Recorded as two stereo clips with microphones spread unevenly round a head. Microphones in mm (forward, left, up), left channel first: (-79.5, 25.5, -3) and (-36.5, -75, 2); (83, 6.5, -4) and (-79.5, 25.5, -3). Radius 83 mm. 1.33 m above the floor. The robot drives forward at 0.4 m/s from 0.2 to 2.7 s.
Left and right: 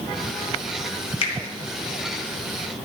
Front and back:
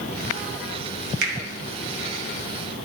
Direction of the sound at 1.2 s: 145° left.